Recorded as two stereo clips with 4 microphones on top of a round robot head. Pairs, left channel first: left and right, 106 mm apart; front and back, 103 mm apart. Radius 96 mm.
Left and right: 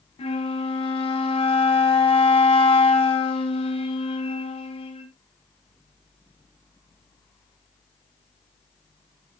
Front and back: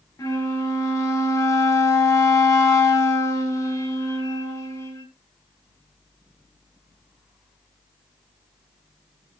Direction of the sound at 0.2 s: 60° left.